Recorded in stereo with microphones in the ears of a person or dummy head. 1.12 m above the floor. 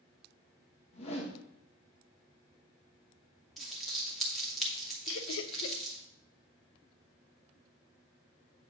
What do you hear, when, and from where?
0.9 s a whoosh: 40° left (ahead or behind), 1.5 m
3.6 s crumpling: 5° left (ahead or behind), 2 m
5.1 s laughter: 75° left (ahead or behind), 0.9 m